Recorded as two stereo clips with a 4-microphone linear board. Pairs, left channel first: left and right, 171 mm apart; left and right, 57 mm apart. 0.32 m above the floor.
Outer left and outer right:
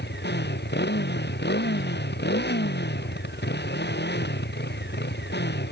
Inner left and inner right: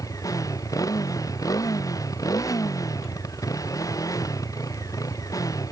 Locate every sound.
0.0 s a motorcycle: 85° left